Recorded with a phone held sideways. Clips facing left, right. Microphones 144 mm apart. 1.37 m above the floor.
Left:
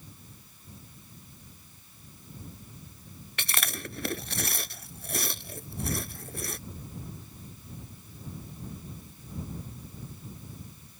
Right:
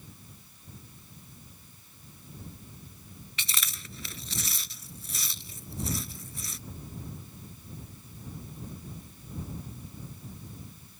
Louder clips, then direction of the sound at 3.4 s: Left 7 dB; 70° left (ahead or behind).